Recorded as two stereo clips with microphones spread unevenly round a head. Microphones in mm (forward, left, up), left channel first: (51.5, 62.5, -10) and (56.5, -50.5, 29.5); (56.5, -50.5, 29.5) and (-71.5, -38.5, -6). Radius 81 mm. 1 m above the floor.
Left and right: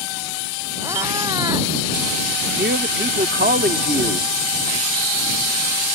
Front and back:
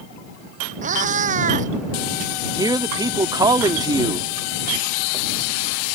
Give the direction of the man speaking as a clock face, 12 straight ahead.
4 o'clock.